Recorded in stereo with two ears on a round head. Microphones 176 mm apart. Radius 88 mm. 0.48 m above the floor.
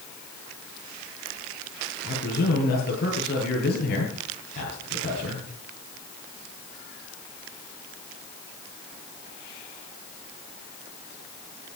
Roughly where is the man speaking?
Left.